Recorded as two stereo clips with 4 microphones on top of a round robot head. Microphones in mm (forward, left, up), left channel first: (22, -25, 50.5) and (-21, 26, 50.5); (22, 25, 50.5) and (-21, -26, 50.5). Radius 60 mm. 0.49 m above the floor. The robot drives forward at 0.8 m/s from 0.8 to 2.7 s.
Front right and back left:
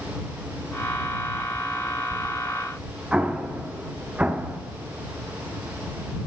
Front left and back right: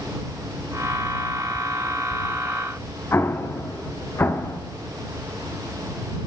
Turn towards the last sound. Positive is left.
turn(degrees=65)